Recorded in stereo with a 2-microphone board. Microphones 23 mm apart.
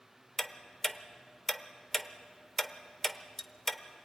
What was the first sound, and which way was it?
Ticking, 15° left (ahead or behind).